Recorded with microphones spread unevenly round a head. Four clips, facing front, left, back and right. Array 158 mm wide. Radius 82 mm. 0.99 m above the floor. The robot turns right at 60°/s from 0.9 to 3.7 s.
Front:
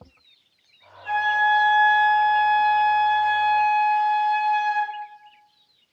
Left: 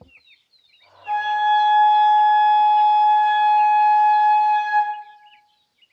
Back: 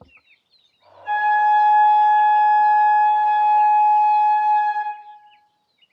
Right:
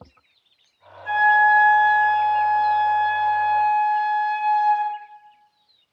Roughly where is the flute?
Right.